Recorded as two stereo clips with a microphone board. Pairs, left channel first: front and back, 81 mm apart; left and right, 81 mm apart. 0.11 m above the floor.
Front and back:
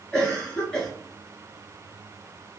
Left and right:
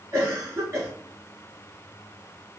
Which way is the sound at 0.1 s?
75° right.